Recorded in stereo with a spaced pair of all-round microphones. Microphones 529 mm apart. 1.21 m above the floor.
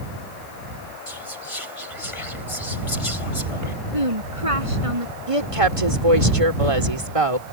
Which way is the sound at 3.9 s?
80° right.